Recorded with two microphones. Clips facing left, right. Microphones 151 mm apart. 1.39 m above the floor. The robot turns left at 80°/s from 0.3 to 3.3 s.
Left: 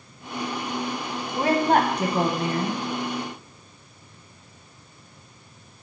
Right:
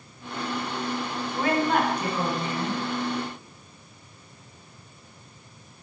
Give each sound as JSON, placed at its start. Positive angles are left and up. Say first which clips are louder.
{"t": 1.4, "sound": "a woman speaking", "louder": "left 3 dB", "azimuth_deg": 160, "distance_m": 1.3}